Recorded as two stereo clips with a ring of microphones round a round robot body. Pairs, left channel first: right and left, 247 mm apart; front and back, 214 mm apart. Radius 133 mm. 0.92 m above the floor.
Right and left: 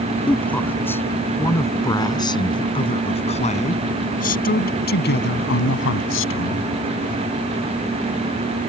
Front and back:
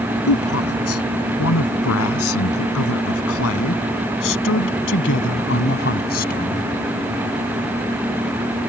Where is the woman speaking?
5° right; by 6.7 s 60° right.